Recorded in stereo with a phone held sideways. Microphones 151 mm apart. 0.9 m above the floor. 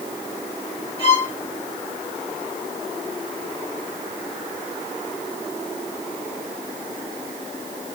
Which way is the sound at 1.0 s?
40° left (ahead or behind).